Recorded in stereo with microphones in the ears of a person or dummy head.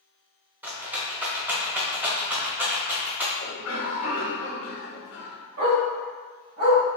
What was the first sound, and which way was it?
A rattle, 10° right (ahead or behind).